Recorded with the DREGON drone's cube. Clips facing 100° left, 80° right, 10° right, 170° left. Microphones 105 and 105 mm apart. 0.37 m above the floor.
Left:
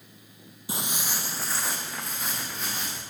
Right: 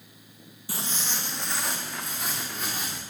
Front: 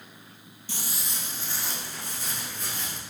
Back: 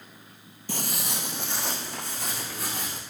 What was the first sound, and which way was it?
Footsteps, 165° left.